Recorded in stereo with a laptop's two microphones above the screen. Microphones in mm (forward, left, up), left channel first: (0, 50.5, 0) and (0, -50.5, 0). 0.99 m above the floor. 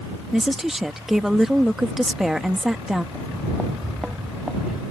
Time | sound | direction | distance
0.3 | a woman speaking | 5° right (ahead or behind) | ?
3.1 | footsteps | 5° right (ahead or behind) | ?